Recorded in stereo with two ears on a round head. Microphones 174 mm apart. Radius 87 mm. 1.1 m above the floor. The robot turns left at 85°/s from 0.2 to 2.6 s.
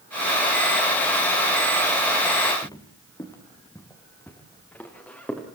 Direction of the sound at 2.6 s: 20° left (ahead or behind).